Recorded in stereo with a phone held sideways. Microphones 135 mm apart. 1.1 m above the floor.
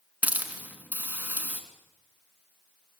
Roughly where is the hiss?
Centre.